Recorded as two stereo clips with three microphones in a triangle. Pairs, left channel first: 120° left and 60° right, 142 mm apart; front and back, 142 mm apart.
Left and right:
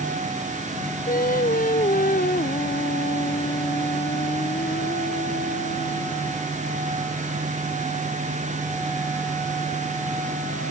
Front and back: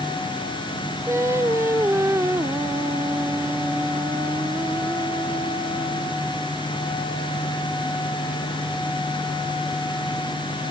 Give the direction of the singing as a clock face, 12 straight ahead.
8 o'clock.